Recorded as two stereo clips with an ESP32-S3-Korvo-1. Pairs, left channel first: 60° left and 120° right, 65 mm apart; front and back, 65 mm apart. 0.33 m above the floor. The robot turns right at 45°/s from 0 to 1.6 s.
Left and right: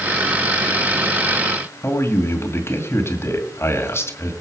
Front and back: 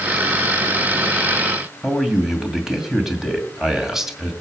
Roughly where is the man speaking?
Left.